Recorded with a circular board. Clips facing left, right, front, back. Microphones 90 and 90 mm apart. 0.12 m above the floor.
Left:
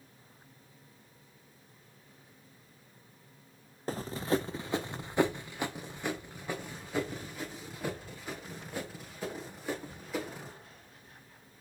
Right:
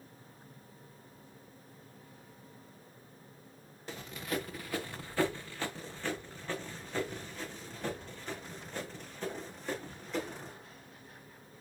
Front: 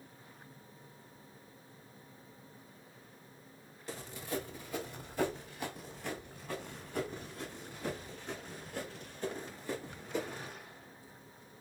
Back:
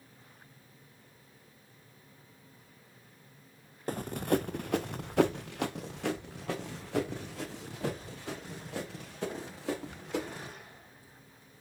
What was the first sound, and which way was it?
Running footsteps, 140° left.